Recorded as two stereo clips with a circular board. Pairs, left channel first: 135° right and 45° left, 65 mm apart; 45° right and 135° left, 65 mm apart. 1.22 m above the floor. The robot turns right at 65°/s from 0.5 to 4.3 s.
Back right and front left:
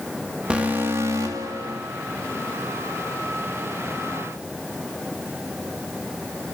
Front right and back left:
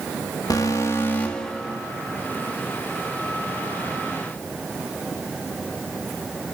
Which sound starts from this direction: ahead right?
An alarm, at 0.5 s.